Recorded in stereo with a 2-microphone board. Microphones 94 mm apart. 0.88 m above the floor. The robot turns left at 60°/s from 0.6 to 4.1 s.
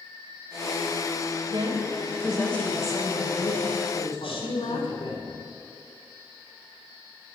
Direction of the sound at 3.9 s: 65° left (ahead or behind).